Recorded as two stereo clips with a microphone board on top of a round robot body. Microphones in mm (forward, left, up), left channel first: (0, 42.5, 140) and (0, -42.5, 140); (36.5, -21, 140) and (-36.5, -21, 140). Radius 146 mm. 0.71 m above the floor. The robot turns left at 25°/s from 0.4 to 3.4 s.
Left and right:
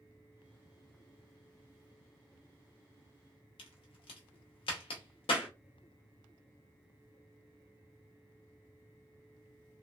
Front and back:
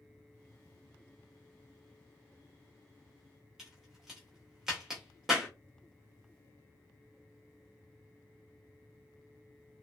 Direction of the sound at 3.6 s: 95° left.